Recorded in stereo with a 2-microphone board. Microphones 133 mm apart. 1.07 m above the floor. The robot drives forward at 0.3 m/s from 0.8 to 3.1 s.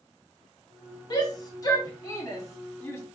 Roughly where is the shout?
Left.